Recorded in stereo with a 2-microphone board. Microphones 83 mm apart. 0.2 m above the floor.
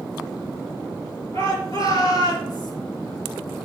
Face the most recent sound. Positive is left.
turn(degrees=60)  # may be behind; listen again after turning